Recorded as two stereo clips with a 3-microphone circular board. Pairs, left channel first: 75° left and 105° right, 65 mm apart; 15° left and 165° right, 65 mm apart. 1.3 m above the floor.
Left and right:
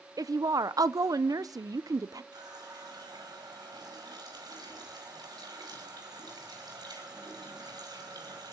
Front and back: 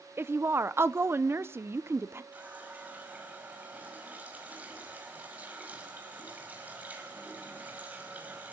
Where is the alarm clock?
No alarm clock in this recording.